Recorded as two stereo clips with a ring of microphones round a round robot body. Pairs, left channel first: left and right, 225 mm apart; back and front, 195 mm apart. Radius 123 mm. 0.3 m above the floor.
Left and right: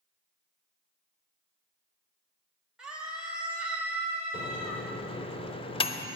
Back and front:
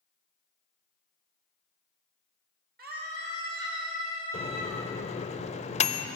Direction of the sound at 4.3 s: 145° left.